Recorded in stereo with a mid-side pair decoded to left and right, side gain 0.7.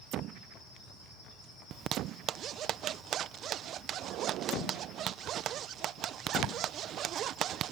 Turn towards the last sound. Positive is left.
turn(degrees=-45)